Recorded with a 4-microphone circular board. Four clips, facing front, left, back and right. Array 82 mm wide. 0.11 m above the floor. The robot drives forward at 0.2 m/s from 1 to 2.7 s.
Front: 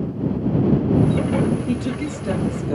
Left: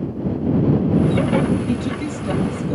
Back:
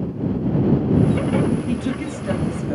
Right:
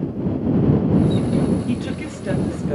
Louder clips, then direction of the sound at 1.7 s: Left 2 dB, even; 115° right.